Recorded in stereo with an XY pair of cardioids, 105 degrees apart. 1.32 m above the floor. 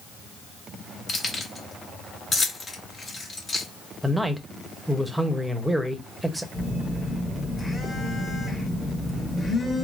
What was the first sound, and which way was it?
Keys jangling, 40° left.